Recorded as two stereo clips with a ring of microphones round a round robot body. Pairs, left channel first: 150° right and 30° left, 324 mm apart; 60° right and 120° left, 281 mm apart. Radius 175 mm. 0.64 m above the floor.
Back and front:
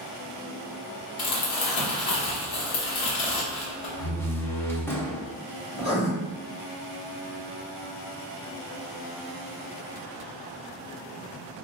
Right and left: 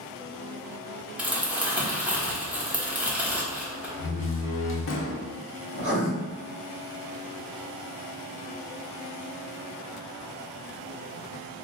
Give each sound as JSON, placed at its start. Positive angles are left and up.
{"t": 1.2, "sound": "crumpling", "azimuth_deg": -155, "distance_m": 1.1}
{"t": 4.0, "sound": "a door slam", "azimuth_deg": -70, "distance_m": 0.7}
{"t": 5.7, "sound": "writing", "azimuth_deg": 175, "distance_m": 1.6}